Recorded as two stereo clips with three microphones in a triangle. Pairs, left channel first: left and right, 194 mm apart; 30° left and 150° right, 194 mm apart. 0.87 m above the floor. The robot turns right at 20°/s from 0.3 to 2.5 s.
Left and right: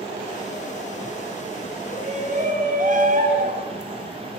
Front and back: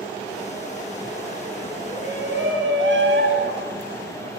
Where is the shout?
150° right, 6.5 m; by 4.4 s 135° right, 6.5 m.